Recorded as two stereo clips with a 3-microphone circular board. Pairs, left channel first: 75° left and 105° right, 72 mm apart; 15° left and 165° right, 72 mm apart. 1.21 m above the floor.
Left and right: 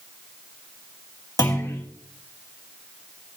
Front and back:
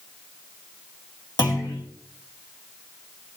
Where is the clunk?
35° left, 2 m.